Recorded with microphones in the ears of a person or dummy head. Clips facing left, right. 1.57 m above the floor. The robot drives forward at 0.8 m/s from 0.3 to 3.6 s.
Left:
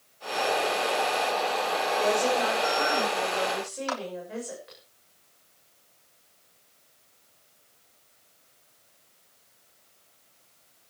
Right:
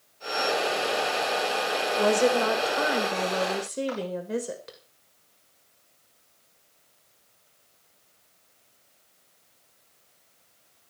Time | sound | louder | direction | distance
2.0 | a woman speaking | right 4 dB | 65° right (ahead or behind) | 6.5 m
3.9 | a clap | right 2 dB | 85° left | 4 m